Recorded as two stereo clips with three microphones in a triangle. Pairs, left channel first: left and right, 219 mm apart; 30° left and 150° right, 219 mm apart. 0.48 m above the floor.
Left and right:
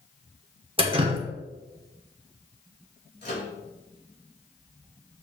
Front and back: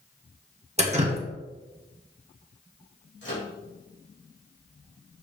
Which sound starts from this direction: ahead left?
A microwave, at 3.2 s.